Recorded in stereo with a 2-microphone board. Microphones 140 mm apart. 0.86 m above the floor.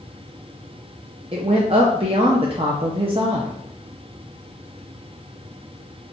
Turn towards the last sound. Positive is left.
turn(degrees=-45)  # may be behind; listen again after turning